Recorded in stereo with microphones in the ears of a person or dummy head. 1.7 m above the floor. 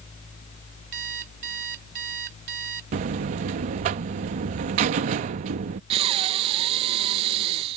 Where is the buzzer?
40° right (ahead or behind).